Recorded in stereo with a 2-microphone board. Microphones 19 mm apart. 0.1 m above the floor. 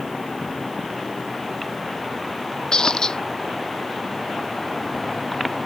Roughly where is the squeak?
Left.